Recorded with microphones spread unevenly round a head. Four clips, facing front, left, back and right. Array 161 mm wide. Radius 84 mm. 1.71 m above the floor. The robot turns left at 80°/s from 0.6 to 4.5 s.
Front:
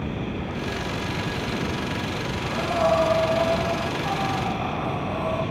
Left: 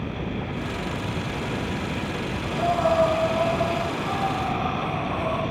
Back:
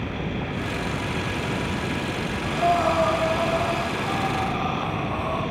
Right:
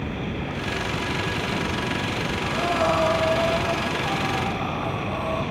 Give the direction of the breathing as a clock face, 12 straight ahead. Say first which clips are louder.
Left 1 dB, back 2 dB; 3 o'clock.